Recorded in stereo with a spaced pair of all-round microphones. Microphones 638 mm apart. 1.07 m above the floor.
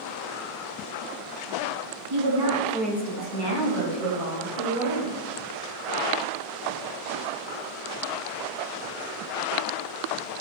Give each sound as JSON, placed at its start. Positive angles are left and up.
{"t": 2.1, "sound": "a woman speaking", "side_deg": -50, "distance_m": 1.0}